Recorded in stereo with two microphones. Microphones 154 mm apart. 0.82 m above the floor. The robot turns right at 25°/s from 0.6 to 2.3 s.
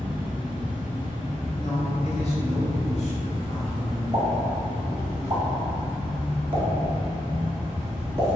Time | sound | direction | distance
0.0 | an insect | 75° right | 1.2 m
1.6 | a man speaking | 35° left (ahead or behind) | 1.0 m
4.1 | a pop | 35° right (ahead or behind) | 0.9 m